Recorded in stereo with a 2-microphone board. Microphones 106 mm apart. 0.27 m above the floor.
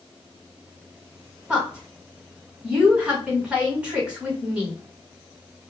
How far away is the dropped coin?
I don't hear a dropped coin.